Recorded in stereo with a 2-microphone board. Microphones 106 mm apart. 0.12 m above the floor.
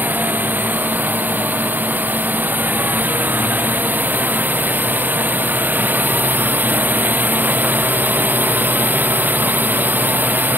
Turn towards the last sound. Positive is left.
turn(degrees=-15)  # may be behind; listen again after turning